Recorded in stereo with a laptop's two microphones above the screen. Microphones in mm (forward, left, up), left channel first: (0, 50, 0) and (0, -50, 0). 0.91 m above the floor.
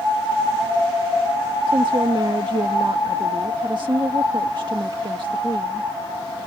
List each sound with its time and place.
1.7 s a woman speaking: 50° right (ahead or behind)